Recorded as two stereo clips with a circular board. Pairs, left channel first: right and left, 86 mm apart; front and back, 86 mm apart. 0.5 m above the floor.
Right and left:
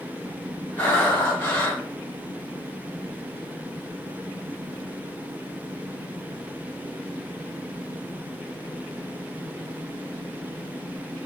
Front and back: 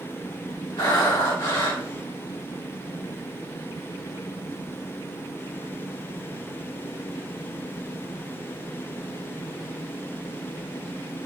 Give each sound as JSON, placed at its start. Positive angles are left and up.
{"t": 0.8, "sound": "breathing", "azimuth_deg": -25, "distance_m": 2.0}